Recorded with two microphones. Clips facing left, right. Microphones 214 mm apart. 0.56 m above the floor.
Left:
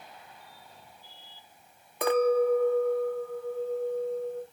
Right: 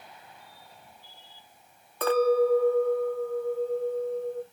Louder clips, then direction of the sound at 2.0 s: Right 1 dB; 15° left (ahead or behind).